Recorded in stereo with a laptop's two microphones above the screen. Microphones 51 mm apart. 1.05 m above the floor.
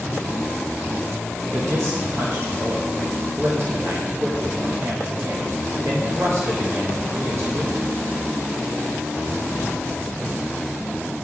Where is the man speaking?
55° right (ahead or behind), 0.8 m.